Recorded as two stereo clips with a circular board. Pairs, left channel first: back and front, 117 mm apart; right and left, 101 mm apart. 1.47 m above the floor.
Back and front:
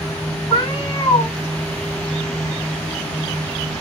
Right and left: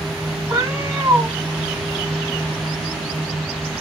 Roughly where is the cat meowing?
Behind left.